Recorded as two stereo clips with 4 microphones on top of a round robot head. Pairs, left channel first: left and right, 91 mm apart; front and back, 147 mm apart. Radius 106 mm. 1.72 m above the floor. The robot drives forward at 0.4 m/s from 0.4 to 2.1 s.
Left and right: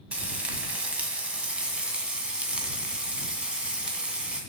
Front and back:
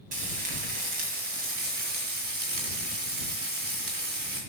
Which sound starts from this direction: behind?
Frying, at 0.1 s.